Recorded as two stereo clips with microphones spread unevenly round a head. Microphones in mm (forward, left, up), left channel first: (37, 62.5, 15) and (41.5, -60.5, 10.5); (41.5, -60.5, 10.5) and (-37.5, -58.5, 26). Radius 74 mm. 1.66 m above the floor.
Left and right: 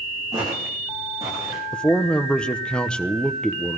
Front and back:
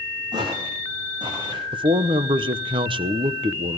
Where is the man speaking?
175° left, 1.0 m.